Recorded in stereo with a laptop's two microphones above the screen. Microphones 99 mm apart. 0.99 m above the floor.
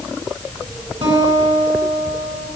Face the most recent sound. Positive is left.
turn(degrees=-55)  # may be behind; listen again after turning